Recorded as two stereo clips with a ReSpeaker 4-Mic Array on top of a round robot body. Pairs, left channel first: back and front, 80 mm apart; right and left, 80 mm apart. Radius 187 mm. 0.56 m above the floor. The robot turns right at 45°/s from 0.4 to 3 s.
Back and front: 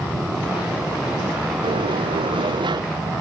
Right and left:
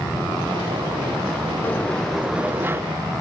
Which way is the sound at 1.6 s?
20° right.